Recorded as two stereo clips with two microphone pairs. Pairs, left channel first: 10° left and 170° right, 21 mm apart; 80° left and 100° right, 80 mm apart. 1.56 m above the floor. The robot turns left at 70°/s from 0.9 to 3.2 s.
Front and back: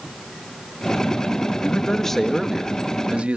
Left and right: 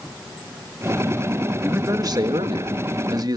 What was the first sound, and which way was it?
A man speaking, 30° right.